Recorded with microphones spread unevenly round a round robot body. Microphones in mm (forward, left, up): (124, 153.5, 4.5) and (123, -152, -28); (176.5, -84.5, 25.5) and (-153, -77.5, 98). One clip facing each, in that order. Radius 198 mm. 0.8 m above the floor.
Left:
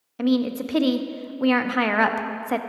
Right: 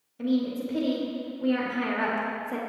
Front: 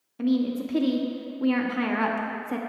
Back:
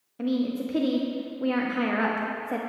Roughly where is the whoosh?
I don't hear a whoosh.